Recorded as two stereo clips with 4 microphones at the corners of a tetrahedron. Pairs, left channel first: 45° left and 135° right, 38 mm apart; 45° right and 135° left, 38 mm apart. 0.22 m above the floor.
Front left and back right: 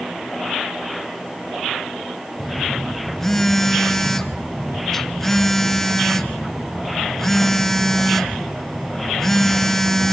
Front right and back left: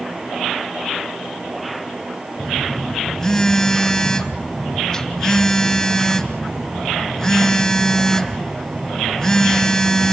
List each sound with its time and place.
2.4 s a phone buzzing: 15° right, 1.2 m